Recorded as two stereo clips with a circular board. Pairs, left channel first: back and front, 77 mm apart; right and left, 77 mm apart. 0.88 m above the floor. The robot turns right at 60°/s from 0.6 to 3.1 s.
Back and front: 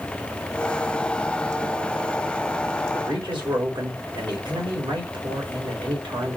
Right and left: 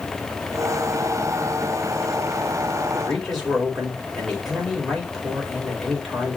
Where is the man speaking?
10° right, 4.5 m; by 6.4 s straight ahead, 4.5 m.